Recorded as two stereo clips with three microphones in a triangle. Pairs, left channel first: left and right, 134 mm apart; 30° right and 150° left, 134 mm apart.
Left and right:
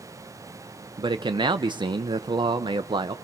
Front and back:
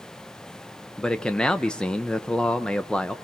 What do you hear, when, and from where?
1.0 s a man speaking: 110° right, 0.7 m